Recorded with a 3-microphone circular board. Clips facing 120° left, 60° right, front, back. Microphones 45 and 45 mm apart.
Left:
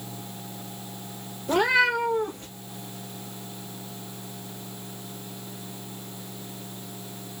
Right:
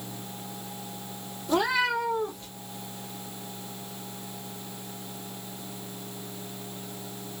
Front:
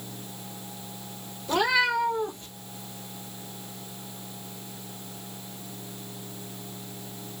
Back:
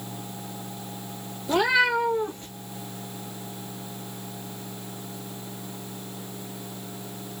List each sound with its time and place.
1.5 s a cat meowing: 100° left, 1.2 m; by 2.5 s 135° left, 1.2 m